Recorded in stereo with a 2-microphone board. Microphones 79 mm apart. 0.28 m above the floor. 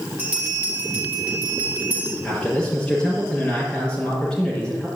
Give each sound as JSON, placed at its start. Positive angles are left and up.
{"t": 0.2, "sound": "a bell", "side_deg": -20, "distance_m": 4.0}
{"t": 2.2, "sound": "a man speaking", "side_deg": 15, "distance_m": 5.5}